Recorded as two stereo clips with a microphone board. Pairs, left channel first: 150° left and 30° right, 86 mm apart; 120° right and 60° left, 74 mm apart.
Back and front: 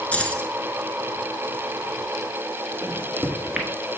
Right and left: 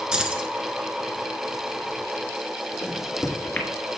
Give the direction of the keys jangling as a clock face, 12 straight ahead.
8 o'clock.